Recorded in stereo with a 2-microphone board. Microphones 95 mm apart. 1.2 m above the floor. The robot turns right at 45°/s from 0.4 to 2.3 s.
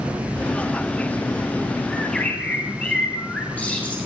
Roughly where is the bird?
Centre.